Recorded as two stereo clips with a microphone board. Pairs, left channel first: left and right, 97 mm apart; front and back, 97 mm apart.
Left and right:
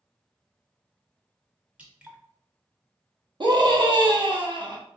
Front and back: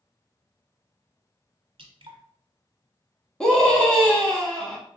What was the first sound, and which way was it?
Dripping, 165° right.